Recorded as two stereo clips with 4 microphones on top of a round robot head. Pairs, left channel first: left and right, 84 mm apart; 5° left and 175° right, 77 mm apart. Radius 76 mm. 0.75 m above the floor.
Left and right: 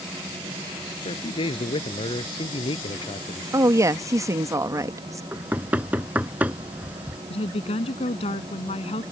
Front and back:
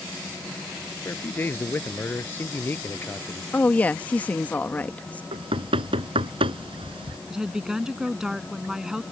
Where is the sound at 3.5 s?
60° right.